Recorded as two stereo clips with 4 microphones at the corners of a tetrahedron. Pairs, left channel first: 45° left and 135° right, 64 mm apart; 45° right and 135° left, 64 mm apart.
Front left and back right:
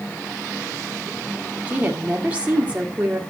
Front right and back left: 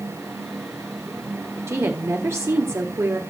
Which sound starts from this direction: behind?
A woman speaking, at 1.7 s.